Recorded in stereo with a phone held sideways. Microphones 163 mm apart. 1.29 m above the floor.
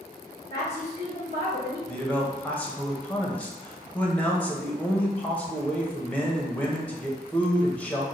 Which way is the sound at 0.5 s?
65° right (ahead or behind).